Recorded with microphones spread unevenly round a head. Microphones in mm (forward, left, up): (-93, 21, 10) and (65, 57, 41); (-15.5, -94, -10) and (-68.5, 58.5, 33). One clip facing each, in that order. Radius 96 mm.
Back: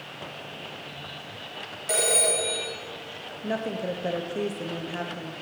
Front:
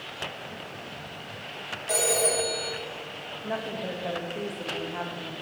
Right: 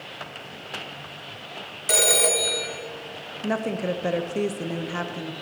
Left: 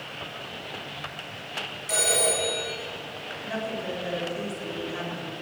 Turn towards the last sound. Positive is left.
turn(degrees=-100)